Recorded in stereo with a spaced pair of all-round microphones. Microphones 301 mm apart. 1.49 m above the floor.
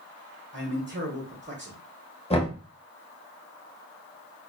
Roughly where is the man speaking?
Right.